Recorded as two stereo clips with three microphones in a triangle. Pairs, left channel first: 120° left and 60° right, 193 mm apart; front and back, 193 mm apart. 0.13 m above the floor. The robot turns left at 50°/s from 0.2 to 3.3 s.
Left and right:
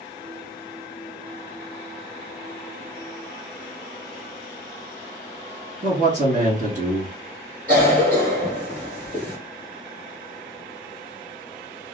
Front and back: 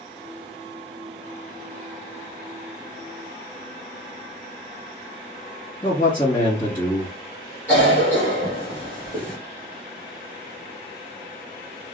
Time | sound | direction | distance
5.8 | a man speaking | 55° right | 1.9 m
7.7 | a cough | 80° right | 1.9 m